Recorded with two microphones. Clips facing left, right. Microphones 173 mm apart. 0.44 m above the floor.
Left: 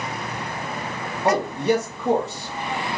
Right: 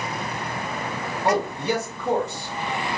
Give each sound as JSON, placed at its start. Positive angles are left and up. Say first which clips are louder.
{"t": 1.2, "sound": "a man speaking", "louder": "left 3 dB", "side_deg": 25, "distance_m": 1.5}